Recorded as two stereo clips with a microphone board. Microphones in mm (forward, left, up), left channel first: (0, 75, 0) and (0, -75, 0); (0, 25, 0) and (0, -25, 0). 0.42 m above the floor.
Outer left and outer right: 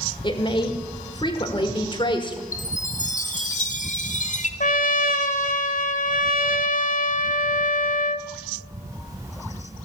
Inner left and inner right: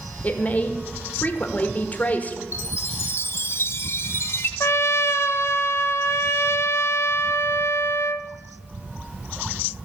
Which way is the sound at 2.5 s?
55° left (ahead or behind).